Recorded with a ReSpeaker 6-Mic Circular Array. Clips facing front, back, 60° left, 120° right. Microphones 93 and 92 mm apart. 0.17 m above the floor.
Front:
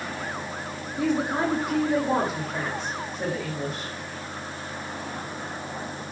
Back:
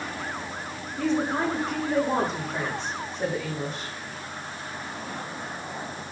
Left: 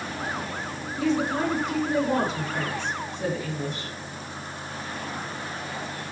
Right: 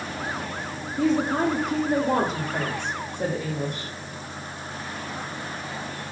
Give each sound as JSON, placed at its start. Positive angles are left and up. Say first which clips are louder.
{"t": 1.0, "sound": "a woman speaking", "louder": "front 1 dB, right 2 dB", "azimuth_deg": -80, "distance_m": 6.5}